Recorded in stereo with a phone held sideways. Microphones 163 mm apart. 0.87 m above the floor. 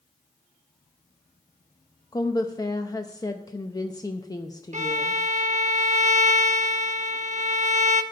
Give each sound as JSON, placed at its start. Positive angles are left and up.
{"t": 2.1, "sound": "a woman speaking", "side_deg": 25, "distance_m": 0.6}
{"t": 4.7, "sound": "a violin", "side_deg": -50, "distance_m": 0.6}